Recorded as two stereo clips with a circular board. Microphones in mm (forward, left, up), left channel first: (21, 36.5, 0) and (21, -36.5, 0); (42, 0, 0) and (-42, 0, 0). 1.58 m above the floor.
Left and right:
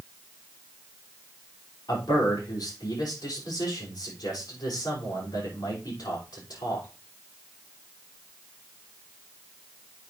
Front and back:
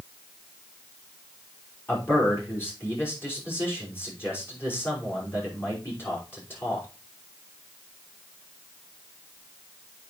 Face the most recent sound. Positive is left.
turn(degrees=60)